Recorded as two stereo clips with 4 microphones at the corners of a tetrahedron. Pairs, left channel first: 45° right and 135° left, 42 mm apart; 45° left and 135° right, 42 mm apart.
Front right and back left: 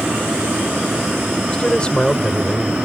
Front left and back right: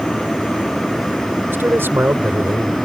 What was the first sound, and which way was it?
A man speaking, 110° right.